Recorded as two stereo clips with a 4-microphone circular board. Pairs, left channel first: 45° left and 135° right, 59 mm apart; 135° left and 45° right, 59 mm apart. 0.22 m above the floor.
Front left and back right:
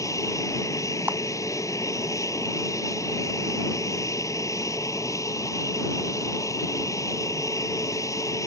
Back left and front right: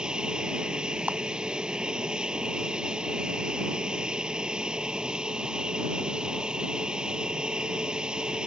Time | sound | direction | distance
0.0 | an aircraft | 30° left | ?
1.1 | a clap | 95° right | ?